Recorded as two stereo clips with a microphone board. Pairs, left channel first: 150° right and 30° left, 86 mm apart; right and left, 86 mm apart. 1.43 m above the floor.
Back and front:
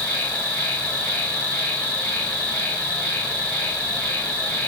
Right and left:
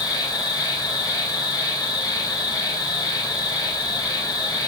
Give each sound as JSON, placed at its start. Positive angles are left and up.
{"t": 0.0, "sound": "an insect", "azimuth_deg": -80, "distance_m": 1.7}